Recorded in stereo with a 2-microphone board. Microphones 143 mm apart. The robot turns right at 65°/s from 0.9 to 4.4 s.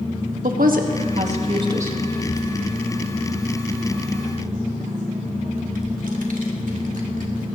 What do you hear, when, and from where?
0.4 s a woman speaking: 80° right, 1.6 m; by 2.0 s 10° right (ahead or behind), 1.6 m
2.1 s a child speaking: 80° left, 2.5 m; by 7.5 s 70° right (ahead or behind), 2.5 m